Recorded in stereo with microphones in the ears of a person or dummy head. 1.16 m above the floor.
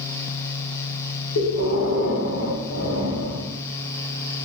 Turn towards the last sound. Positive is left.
turn(degrees=75)  # may be behind; listen again after turning